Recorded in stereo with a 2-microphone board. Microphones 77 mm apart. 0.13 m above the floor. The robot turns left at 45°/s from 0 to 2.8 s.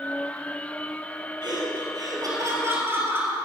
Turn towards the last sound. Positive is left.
turn(degrees=-145)